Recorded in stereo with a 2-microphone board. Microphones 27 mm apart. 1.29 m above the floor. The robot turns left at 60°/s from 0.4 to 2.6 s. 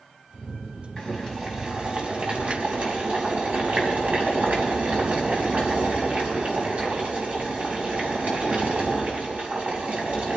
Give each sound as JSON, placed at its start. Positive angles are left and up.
{"t": 1.0, "sound": "boiling", "azimuth_deg": 25, "distance_m": 4.5}